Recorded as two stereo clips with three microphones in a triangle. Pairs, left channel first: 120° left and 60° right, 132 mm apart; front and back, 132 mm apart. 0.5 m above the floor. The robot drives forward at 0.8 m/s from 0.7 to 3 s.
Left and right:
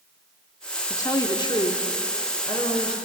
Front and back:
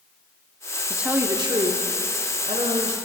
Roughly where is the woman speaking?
Left.